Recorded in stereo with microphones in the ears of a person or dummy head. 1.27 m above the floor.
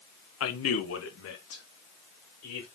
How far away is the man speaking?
About 1.0 m.